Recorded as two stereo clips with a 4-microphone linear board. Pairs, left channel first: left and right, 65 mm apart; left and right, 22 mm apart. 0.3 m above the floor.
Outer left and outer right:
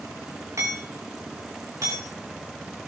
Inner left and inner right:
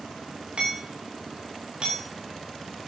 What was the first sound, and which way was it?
Hammering, 50° right (ahead or behind).